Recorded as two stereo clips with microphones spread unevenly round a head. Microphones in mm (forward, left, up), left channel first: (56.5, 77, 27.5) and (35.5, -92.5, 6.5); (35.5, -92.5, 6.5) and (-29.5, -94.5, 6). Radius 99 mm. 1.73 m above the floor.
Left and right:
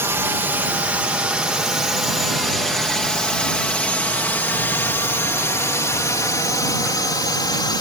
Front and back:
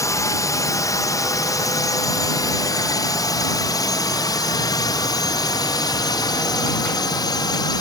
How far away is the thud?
I don't hear a thud.